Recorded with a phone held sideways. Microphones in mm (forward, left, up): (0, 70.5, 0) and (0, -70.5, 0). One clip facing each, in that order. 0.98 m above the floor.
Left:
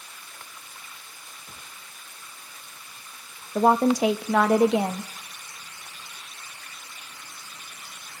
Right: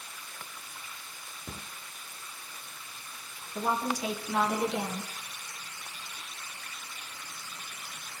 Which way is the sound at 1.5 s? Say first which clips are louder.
Right 7 dB; 50° right (ahead or behind).